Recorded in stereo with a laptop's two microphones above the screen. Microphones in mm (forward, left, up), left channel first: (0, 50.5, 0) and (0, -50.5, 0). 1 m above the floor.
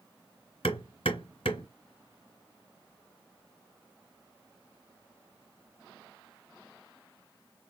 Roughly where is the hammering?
Left.